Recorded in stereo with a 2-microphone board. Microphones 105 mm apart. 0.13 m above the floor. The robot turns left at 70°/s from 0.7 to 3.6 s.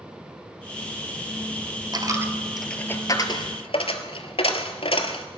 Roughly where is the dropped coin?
Right.